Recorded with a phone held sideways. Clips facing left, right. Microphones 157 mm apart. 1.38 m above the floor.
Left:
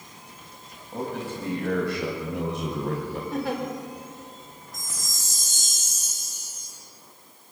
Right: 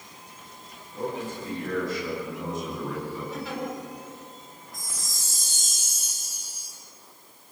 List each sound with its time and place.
0.9 s a man speaking: 70° left (ahead or behind), 8 m; by 3.2 s 75° left (ahead or behind), 6 m
3.3 s a giggle: 55° left (ahead or behind), 3.5 m
4.7 s a chime: 45° left (ahead or behind), 8 m